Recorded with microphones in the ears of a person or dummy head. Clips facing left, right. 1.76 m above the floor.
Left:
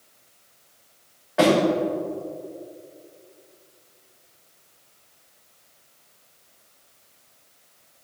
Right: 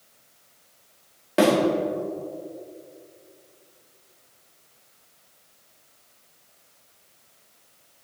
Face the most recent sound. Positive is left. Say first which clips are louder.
# left 1 dB
turn(degrees=-40)  # may be behind; listen again after turning